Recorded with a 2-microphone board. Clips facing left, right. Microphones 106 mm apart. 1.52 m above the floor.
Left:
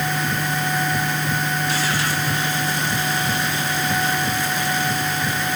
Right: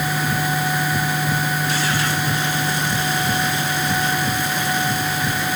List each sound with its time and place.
Only background noise.